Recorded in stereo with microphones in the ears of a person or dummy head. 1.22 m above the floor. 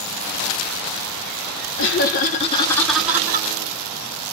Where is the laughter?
55° left (ahead or behind), 0.9 m; by 3.5 s 25° right (ahead or behind), 0.9 m.